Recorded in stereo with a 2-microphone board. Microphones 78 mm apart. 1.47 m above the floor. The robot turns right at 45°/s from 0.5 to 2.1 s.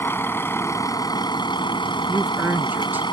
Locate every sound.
0.0 s a vehicle: 30° left; by 3.1 s 100° left
2.1 s a man speaking: 25° right (ahead or behind)